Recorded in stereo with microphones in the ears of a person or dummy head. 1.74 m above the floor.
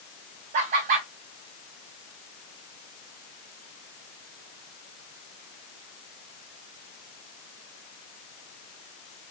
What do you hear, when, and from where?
0.5 s laughter: 45° right (ahead or behind), 0.7 m